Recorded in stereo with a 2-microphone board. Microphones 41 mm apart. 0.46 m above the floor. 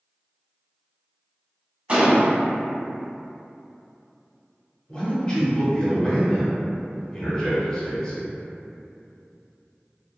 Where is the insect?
I don't hear an insect.